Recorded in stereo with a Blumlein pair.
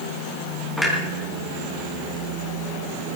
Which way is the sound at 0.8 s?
5° left.